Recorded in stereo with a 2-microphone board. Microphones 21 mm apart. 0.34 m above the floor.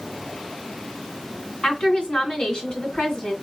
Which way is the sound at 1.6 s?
55° left (ahead or behind).